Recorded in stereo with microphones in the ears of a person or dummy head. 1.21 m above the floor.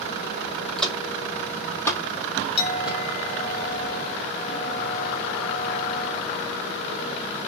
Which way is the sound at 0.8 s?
Centre (ahead or behind).